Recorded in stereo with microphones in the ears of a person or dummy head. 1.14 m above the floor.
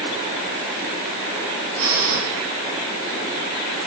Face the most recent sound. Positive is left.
turn(degrees=-85)